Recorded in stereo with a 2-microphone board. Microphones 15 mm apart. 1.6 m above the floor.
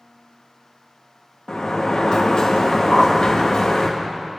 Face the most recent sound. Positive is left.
turn(degrees=0)  # may be behind; listen again after turning